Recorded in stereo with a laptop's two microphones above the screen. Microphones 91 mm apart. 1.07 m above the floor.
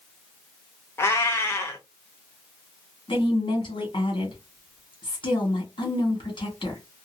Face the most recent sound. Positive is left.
turn(degrees=65)  # may be behind; listen again after turning